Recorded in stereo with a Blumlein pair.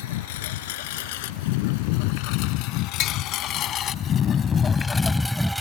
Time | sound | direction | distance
0.0 | a lawn mower | 55° left | ?
3.0 | tapping | 30° left | ?